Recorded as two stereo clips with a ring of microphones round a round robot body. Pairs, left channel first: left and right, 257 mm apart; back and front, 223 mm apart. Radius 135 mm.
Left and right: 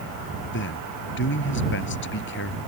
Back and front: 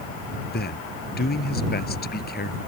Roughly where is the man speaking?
Behind left.